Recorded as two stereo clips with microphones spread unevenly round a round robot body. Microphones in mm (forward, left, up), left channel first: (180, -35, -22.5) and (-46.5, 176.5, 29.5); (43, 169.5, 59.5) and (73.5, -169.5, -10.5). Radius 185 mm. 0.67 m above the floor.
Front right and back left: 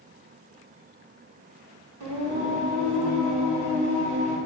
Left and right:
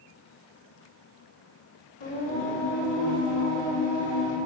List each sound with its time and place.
2.0 s singing: 110° left, 2.5 m